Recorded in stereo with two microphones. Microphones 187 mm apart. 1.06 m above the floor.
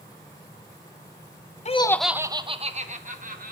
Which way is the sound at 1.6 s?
40° left (ahead or behind).